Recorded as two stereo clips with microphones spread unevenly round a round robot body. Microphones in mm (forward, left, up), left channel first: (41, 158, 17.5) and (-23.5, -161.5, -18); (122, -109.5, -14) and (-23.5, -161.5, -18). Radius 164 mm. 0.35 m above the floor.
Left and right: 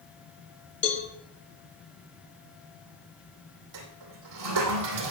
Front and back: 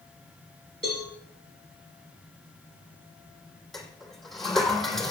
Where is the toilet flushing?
70° right, 2.5 m.